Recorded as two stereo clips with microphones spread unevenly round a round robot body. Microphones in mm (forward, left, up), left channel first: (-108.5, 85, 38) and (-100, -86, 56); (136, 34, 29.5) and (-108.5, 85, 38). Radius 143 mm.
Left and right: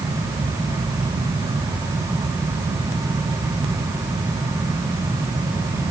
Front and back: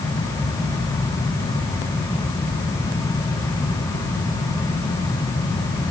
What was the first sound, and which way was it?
Only background noise.